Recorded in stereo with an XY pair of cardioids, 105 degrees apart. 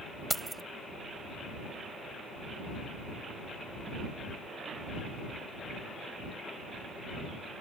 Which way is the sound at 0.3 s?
Straight ahead.